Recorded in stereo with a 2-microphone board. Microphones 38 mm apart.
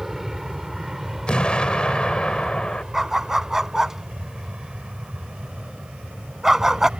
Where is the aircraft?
10° right (ahead or behind); by 7.0 s 30° right (ahead or behind).